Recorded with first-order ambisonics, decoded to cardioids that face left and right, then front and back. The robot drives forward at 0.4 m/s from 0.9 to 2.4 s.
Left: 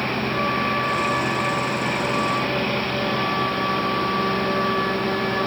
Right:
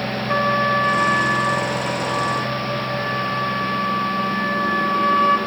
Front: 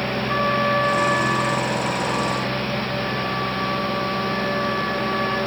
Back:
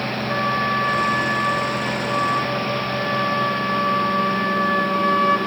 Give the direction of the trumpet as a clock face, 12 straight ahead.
3 o'clock.